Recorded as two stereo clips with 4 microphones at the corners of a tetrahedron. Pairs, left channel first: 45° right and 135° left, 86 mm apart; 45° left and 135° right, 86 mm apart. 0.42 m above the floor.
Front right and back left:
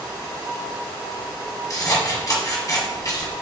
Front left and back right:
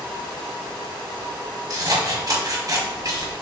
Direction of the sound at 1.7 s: 90° right.